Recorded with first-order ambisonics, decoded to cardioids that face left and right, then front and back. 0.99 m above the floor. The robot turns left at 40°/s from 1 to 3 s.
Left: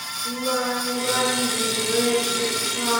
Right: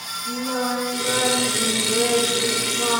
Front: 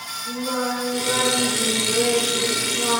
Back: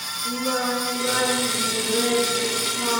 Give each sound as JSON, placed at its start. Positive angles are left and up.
{"t": 0.2, "sound": "singing", "azimuth_deg": 150, "distance_m": 2.0}